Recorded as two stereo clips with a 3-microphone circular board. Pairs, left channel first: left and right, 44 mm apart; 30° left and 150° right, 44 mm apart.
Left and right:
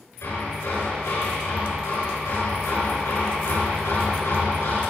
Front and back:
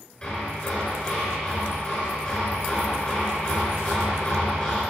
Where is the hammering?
95° left, 7 m.